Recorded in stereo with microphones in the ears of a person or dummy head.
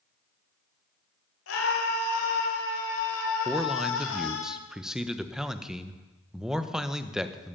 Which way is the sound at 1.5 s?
85° left.